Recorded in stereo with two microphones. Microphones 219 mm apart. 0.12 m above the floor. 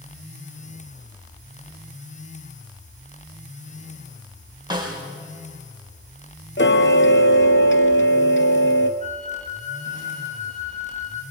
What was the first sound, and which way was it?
A snare drum, 20° right (ahead or behind).